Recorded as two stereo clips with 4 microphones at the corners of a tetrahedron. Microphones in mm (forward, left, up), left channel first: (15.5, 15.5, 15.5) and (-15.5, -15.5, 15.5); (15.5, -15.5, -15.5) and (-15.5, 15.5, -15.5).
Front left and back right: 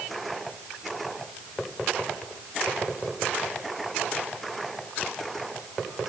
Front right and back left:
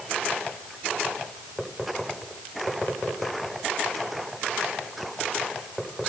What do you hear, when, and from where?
Only background noise.